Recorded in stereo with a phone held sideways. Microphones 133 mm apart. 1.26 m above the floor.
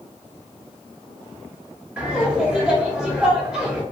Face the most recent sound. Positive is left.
turn(degrees=-5)  # may be behind; listen again after turning